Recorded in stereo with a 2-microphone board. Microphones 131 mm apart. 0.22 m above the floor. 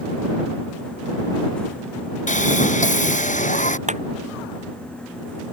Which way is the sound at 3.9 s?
65° right (ahead or behind).